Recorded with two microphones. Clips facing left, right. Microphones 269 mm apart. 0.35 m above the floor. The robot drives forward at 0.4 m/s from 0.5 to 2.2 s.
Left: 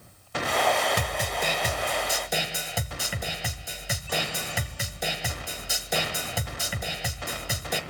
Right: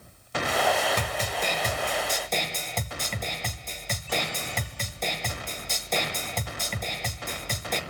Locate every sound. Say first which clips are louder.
1.0 s a snare drum: even; 10° left (ahead or behind), 1.0 m